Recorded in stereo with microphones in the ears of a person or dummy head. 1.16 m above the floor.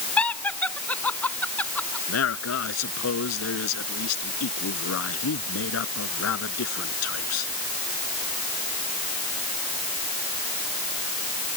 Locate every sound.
0.2 s laughter: 10° left (ahead or behind)
2.1 s a man speaking: 85° left